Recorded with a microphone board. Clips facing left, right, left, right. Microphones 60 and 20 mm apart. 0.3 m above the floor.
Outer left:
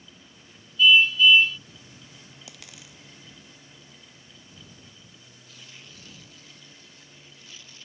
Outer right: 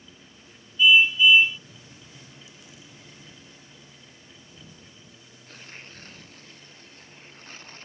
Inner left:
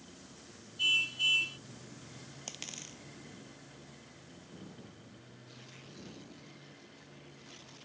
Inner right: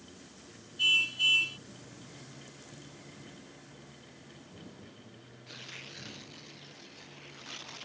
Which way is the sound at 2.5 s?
80° left.